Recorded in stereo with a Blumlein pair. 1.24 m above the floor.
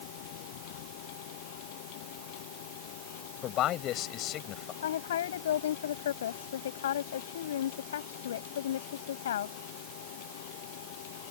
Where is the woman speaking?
60° left.